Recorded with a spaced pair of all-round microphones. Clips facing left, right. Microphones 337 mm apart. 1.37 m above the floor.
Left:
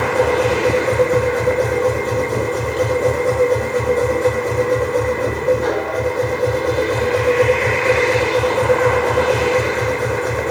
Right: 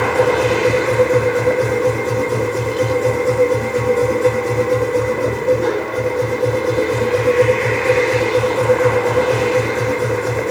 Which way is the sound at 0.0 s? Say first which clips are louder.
Right 1 dB; 35° right (ahead or behind).